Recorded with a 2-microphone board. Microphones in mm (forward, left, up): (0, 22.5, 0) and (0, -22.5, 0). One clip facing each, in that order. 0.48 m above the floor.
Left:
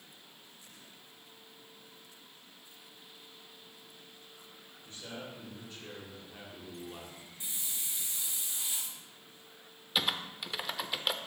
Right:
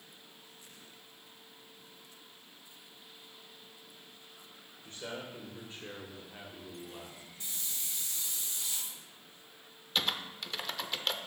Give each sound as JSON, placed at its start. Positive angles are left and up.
{"t": 4.8, "sound": "a man speaking", "side_deg": -50, "distance_m": 2.0}
{"t": 7.4, "sound": "a hiss", "side_deg": 20, "distance_m": 1.4}
{"t": 9.9, "sound": "typing on a keyboard", "side_deg": 10, "distance_m": 0.5}